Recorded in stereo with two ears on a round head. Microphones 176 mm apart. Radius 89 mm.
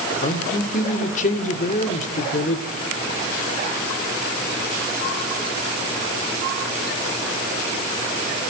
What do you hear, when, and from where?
0.2 s a man speaking: 40° left (ahead or behind), 1.8 m